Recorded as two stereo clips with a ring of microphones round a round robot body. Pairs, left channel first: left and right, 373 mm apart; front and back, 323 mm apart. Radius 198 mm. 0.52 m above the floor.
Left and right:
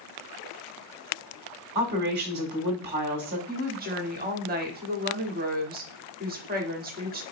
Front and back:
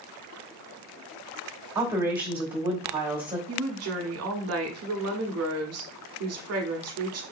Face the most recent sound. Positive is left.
turn(degrees=-150)